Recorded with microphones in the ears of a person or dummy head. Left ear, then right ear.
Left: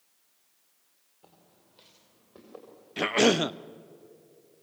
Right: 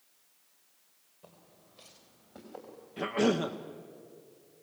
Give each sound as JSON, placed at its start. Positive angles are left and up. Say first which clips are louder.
{"t": 1.2, "sound": "footsteps", "louder": "right 2 dB", "side_deg": 5, "distance_m": 3.0}
{"t": 3.0, "sound": "a cough", "louder": "left 6 dB", "side_deg": 75, "distance_m": 0.5}